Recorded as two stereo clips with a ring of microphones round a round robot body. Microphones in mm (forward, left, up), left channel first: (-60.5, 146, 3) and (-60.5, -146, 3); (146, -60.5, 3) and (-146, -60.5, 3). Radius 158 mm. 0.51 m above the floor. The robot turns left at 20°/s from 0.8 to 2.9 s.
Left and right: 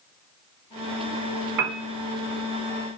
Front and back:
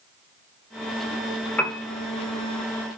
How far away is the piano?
About 1.0 m.